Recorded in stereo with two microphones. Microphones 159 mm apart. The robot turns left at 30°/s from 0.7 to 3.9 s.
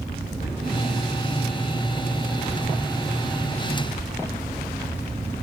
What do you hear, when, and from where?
0.4 s a cupboard door: 45° left (ahead or behind), 2.5 m